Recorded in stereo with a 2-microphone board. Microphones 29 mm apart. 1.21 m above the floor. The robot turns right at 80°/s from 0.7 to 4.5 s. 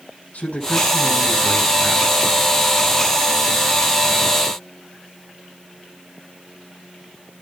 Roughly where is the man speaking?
Left.